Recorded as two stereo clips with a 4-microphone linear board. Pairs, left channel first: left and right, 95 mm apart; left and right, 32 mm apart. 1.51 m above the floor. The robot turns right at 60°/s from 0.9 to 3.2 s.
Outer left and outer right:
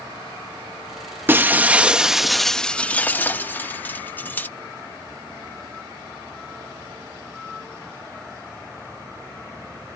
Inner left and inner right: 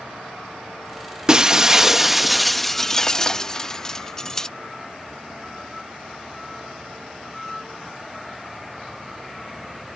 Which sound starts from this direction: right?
Breaking glass, at 1.3 s.